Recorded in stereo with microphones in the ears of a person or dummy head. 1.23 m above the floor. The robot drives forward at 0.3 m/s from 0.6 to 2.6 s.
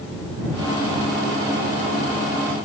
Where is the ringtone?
I don't hear a ringtone.